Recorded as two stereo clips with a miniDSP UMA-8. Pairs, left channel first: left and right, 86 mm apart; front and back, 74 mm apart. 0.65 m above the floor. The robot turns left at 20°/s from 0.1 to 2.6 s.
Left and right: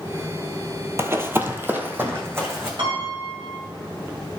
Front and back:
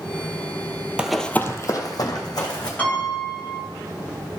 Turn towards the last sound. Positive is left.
turn(degrees=-70)